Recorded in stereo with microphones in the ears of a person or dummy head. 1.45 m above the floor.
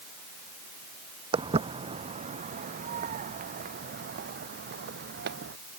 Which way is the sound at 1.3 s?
30° right (ahead or behind).